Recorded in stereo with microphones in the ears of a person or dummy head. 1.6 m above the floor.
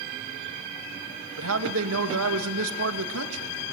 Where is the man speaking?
85° right, 2.5 m.